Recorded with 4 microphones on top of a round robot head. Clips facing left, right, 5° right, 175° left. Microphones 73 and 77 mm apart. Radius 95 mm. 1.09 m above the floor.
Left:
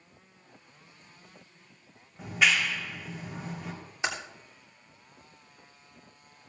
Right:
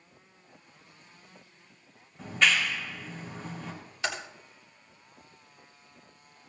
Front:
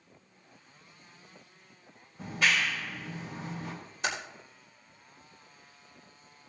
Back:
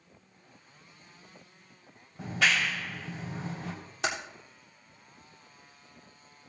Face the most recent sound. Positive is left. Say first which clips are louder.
# left 1 dB, back 1 dB
turn(degrees=160)